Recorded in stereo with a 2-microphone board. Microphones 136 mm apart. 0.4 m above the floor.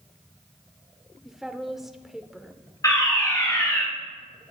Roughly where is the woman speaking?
Centre.